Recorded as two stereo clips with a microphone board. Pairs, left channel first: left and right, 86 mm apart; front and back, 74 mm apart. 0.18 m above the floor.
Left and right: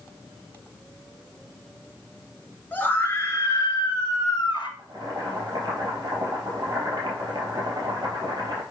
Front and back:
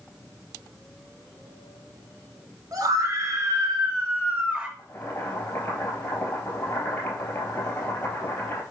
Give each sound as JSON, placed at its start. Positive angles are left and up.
{"t": 2.7, "sound": "a scream", "azimuth_deg": 155, "distance_m": 2.5}
{"t": 4.8, "sound": "boiling", "azimuth_deg": -55, "distance_m": 3.5}